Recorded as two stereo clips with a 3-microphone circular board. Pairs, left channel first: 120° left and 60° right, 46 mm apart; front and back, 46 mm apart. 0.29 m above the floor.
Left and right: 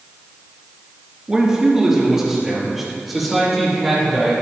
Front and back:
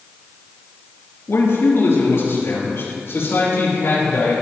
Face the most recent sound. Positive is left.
turn(degrees=30)